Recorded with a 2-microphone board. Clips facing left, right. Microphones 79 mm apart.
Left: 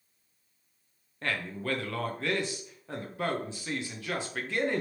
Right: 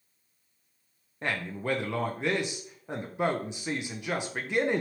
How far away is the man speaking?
About 0.6 m.